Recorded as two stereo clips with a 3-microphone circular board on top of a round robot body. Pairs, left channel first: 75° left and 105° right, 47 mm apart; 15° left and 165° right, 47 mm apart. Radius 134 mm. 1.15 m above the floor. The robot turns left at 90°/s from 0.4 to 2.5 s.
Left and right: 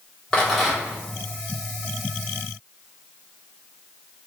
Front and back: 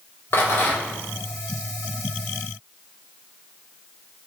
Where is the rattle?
5° left, 1.6 m; by 1.0 s 50° right, 1.6 m.